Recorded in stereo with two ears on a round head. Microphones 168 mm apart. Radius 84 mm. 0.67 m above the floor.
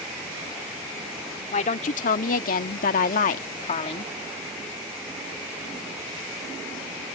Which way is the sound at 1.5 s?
40° left (ahead or behind).